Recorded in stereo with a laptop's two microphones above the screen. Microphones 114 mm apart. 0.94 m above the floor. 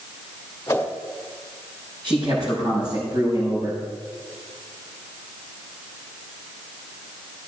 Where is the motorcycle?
I don't hear a motorcycle.